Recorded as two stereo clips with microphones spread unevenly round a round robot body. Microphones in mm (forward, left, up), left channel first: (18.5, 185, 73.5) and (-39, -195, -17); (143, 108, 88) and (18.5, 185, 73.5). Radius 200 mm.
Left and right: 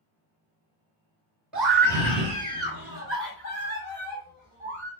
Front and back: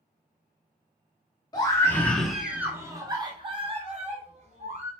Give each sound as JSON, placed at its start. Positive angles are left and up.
{"t": 1.5, "sound": "a scream", "azimuth_deg": -55, "distance_m": 1.2}